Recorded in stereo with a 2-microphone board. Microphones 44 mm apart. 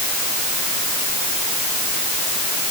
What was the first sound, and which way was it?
Only background noise.